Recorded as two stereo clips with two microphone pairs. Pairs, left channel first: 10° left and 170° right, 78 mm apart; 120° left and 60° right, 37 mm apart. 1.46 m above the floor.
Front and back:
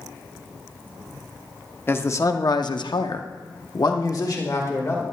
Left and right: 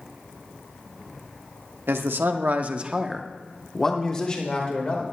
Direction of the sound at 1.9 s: 45° right.